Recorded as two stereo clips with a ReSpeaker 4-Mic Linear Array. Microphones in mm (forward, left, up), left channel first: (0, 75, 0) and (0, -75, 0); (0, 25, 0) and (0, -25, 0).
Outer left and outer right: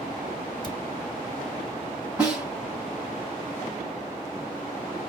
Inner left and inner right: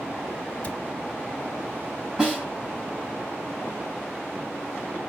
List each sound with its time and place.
0.6 s a cupboard door: 30° left (ahead or behind), 1.5 m
2.2 s a snare drum: 5° right (ahead or behind), 5 m